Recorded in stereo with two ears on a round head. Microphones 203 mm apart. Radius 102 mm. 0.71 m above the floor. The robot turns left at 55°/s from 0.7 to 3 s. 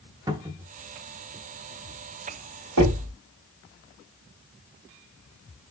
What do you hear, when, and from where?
0.3 s a cupboard door: 15° right (ahead or behind), 0.8 m
2.8 s knocking: 70° right (ahead or behind), 2.5 m; by 3.1 s 80° right, 2.5 m